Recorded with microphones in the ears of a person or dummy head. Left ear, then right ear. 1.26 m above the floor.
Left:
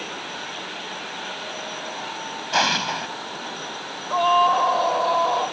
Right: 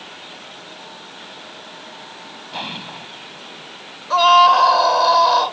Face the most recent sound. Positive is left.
turn(degrees=-60)  # may be behind; listen again after turning